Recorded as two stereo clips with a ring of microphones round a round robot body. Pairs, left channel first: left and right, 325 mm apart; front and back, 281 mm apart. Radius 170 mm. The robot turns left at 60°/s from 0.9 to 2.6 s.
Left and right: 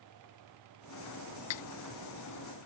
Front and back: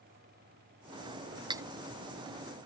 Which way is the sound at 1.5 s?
105° left.